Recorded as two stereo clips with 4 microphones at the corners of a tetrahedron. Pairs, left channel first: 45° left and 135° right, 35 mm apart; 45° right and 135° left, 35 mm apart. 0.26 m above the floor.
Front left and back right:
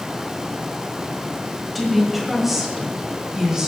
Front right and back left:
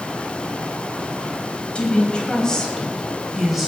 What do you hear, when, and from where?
1.8 s a woman speaking: 45° right, 1.6 m; by 3.7 s 150° right, 1.5 m